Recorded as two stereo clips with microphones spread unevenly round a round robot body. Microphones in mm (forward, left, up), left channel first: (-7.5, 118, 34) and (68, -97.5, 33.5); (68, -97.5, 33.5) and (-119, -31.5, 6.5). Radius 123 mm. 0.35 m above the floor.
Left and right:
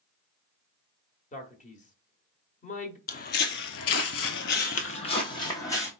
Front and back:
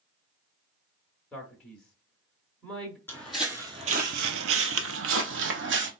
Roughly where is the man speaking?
Left.